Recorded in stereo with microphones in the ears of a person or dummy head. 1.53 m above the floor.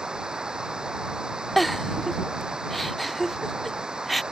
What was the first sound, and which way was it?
Running water, centre (ahead or behind).